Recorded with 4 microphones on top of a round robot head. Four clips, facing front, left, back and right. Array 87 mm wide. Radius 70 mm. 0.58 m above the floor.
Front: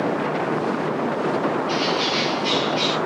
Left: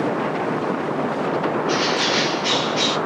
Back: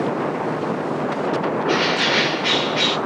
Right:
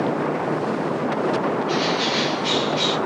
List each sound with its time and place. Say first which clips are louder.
1.6 s a bird: left 1 dB, back 3 dB; 160° left, 0.8 m